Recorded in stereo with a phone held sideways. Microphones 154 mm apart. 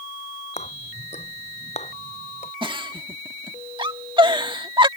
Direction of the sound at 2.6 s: 30° right (ahead or behind).